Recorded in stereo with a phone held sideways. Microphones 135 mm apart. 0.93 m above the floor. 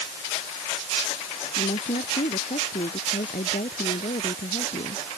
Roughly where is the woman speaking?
Left.